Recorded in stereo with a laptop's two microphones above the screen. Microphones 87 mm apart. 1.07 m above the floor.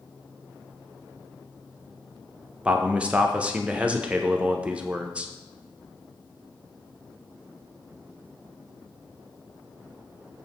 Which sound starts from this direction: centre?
A man speaking, at 2.6 s.